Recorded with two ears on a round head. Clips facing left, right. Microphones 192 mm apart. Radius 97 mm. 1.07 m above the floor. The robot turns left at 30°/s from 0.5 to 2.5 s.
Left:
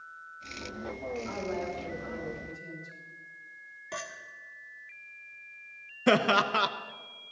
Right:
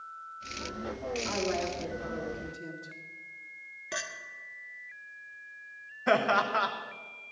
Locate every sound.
1.2 s a woman speaking: 60° right, 3 m; by 3.0 s 95° right, 3 m
3.9 s a clink: 20° right (ahead or behind), 1.2 m
6.1 s laughter: 40° left (ahead or behind), 0.9 m